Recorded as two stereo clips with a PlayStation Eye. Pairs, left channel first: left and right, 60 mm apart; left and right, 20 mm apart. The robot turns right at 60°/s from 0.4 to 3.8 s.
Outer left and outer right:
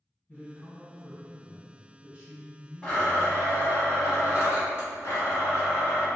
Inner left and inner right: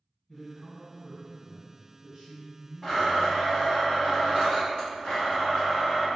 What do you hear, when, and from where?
0.3 s a man speaking: 115° left, 1.4 m; by 3.5 s 60° right, 1.4 m
2.8 s a blender: 10° left, 1.1 m; by 6.1 s 70° left, 1.1 m